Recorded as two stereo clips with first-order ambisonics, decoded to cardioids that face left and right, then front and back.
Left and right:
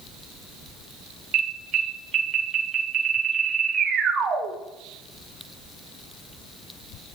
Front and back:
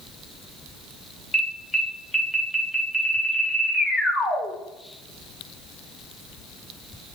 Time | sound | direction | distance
1.3 | an alarm | 85° right | 1.2 m